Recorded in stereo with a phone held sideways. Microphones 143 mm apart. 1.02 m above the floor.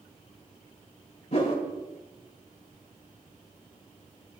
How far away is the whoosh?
About 3 m.